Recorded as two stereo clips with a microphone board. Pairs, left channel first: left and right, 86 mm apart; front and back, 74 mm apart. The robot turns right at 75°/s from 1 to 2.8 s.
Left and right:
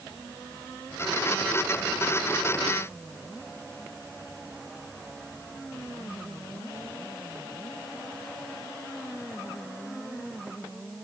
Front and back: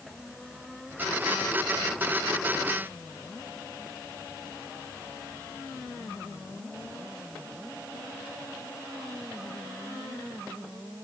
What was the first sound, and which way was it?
Only background noise.